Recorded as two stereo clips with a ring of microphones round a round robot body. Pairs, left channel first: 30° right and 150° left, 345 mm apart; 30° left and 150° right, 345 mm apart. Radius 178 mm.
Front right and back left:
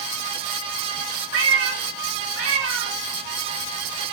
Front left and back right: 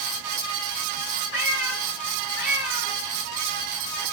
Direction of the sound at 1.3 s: 95° left.